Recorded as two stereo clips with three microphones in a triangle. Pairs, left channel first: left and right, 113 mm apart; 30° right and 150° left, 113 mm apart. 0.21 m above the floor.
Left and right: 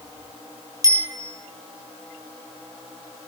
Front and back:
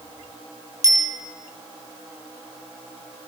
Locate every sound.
0.8 s a bicycle bell: 150° right, 4 m